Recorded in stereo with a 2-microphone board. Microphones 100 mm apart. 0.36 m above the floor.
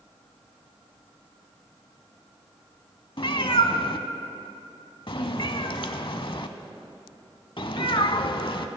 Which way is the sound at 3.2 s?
60° left (ahead or behind).